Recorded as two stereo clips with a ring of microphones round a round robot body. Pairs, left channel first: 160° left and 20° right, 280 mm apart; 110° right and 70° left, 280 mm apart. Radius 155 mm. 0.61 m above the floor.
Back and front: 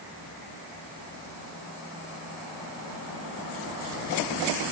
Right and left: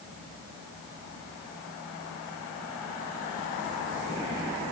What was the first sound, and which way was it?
Only background noise.